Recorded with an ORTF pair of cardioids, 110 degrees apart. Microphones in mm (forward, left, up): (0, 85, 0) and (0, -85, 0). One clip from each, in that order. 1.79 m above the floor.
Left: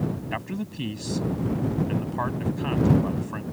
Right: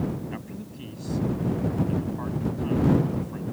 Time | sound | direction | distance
0.3 | a man speaking | 60° left | ?